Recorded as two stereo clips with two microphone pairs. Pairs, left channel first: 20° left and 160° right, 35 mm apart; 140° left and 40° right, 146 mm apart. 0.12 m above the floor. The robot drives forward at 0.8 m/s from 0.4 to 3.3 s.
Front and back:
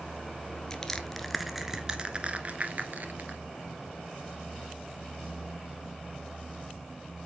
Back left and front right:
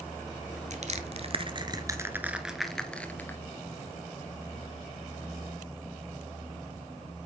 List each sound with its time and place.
0.7 s crushing: 45° right, 1.5 m; by 3.4 s 145° right, 1.7 m